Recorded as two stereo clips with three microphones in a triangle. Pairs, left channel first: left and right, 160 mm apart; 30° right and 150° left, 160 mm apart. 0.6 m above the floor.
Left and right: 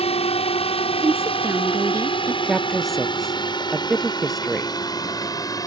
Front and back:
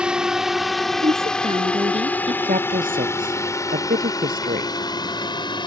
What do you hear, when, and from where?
0.0 s a drone: 70° left; by 5.7 s 25° left
1.0 s a woman speaking: 160° right
2.4 s a woman speaking: straight behind